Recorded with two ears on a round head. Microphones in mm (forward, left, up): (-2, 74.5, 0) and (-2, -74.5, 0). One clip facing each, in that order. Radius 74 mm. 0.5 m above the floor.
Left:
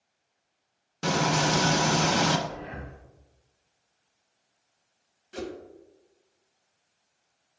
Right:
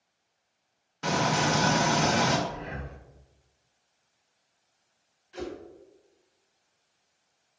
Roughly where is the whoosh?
Left.